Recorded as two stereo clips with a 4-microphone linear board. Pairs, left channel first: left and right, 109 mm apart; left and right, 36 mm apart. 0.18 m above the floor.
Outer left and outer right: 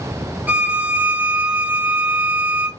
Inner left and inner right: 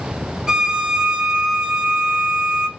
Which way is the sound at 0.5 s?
15° right (ahead or behind).